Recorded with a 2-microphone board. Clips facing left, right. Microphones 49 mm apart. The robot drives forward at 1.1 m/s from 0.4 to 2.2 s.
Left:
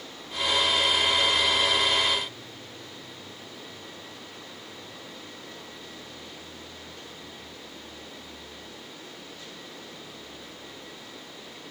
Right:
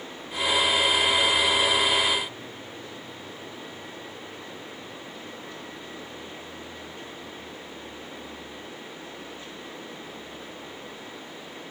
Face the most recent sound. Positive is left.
No sound to turn to.